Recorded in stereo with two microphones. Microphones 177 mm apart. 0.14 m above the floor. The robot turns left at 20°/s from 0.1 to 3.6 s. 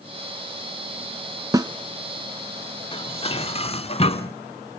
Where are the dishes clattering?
30° left (ahead or behind), 0.8 m; by 4.3 s 35° left (ahead or behind), 0.8 m.